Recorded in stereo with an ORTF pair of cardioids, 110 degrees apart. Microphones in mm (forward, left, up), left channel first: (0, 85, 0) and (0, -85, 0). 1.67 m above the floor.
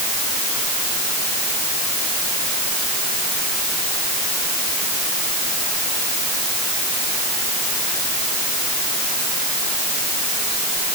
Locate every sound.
Only background noise.